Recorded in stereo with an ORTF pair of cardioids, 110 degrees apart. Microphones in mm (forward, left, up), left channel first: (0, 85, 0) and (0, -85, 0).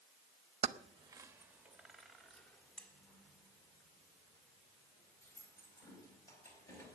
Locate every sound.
0.6 s keys jangling: 40° right, 0.8 m; by 7.0 s 20° left, 5 m